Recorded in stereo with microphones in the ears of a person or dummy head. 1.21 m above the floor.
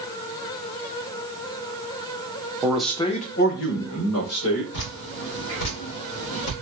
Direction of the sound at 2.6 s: 15° right (ahead or behind).